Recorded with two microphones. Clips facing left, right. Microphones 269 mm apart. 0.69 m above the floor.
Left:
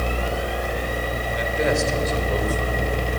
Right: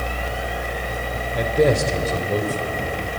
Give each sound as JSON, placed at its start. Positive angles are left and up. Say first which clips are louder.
{"t": 1.4, "sound": "a man speaking", "louder": "right 5 dB", "side_deg": -55, "distance_m": 2.5}